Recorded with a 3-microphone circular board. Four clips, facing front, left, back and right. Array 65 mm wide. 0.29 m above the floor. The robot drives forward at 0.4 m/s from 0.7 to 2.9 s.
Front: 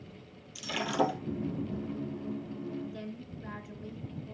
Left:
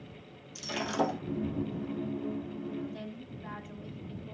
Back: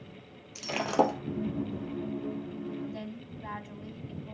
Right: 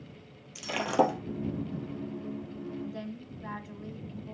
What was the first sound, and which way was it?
Breaking glass, 135° right.